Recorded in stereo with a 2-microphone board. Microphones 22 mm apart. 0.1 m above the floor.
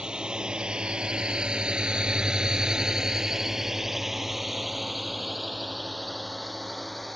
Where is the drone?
40° right (ahead or behind); by 7.2 s 5° left (ahead or behind).